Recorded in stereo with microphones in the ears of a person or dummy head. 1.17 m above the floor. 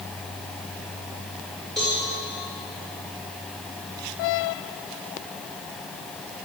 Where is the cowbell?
Centre (ahead or behind), 5 m.